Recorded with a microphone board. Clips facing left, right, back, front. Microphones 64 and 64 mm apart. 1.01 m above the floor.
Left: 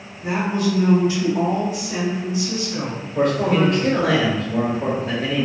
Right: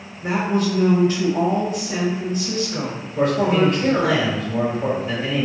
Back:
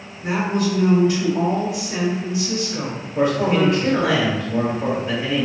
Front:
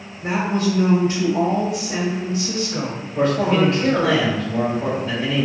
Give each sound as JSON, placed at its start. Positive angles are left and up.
{"t": 0.2, "sound": "a woman speaking", "azimuth_deg": -50, "distance_m": 0.6}
{"t": 3.1, "sound": "a man speaking", "azimuth_deg": 110, "distance_m": 1.1}